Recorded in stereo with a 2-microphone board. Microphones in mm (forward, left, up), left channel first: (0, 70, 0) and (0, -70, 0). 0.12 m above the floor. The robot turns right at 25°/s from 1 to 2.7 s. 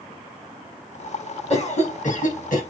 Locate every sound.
1.5 s a cough: 50° left (ahead or behind), 5.5 m; by 2.6 s 70° left (ahead or behind), 5.5 m